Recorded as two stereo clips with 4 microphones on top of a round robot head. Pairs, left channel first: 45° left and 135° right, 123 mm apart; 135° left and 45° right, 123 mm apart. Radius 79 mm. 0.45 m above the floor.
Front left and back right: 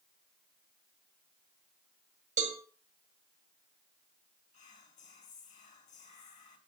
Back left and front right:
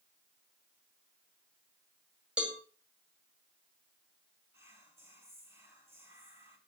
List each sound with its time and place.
2.4 s a cowbell: 120° right, 2 m
4.5 s whispering: 25° left, 3.5 m